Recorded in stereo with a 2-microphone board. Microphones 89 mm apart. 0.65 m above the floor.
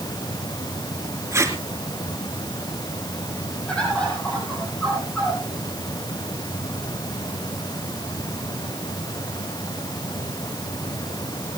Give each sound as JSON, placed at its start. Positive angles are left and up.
{"t": 1.3, "sound": "tape being pulled", "side_deg": -30, "distance_m": 2.5}
{"t": 3.7, "sound": "a bird", "side_deg": 10, "distance_m": 6.5}